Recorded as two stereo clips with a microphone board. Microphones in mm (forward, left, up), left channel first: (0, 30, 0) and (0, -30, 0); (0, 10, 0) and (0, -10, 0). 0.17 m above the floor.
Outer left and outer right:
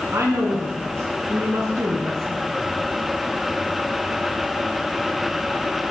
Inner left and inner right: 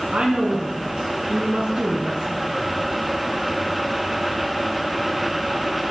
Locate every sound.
0.1 s a woman speaking: 50° right (ahead or behind), 1.5 m